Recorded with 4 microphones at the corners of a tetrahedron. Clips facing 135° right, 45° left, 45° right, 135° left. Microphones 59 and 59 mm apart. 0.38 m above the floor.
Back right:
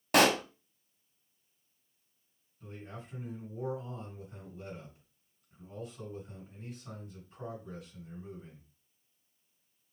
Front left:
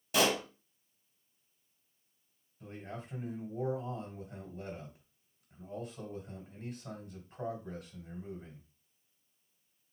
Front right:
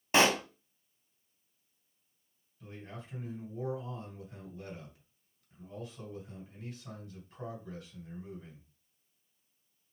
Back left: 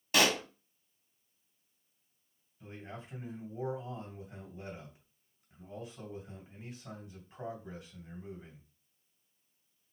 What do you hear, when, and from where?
0.1 s a pop: 110° right, 0.5 m
2.6 s a man speaking: 65° left, 2.5 m